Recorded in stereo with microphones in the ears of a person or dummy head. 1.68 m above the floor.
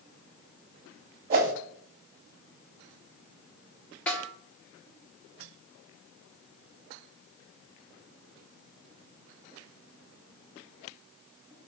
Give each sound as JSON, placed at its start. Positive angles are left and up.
{"t": 1.3, "sound": "a whoosh", "side_deg": -45, "distance_m": 1.2}
{"t": 4.1, "sound": "a snare drum", "side_deg": 5, "distance_m": 1.4}